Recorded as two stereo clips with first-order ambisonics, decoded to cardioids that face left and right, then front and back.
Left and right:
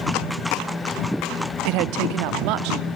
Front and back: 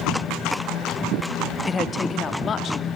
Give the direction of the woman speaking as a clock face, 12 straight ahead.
3 o'clock.